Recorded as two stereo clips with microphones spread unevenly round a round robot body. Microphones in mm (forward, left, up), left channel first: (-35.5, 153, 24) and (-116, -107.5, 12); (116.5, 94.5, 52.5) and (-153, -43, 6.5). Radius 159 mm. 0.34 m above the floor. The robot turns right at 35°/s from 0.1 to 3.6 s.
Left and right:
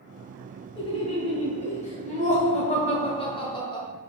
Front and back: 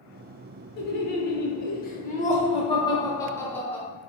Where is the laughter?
25° left, 0.8 m; by 3.9 s 125° left, 0.8 m.